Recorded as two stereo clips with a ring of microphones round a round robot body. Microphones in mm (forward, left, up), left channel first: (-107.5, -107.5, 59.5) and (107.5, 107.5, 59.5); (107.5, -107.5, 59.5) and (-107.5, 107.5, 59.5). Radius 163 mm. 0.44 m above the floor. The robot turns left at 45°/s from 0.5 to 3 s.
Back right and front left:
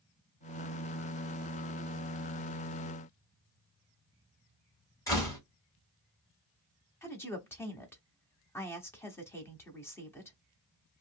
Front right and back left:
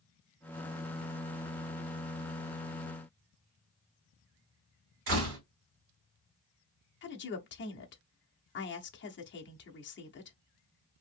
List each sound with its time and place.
5.1 s a door slam: 145° left, 1.9 m
7.0 s a woman speaking: 55° right, 0.8 m